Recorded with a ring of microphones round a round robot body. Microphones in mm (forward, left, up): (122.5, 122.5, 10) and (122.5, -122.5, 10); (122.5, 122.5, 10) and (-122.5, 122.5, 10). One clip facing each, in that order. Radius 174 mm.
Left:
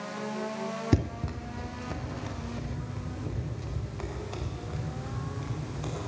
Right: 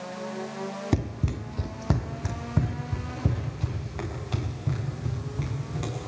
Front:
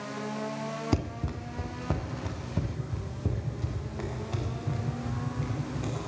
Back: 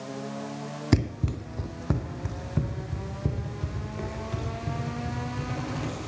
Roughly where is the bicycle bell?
No bicycle bell in this recording.